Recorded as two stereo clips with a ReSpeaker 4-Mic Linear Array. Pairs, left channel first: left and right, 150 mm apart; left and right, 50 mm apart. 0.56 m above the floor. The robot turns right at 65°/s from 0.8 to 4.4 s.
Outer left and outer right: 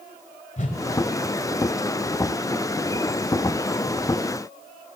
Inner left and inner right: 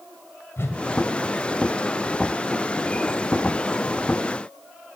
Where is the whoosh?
55° left (ahead or behind), 1.4 m.